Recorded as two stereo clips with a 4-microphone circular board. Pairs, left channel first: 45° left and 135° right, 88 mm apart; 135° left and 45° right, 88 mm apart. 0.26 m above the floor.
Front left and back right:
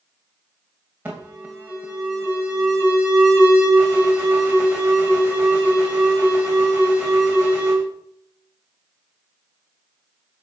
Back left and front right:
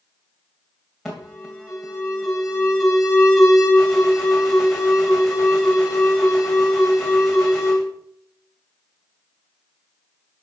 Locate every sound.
1.1 s an alarm: 135° right, 2 m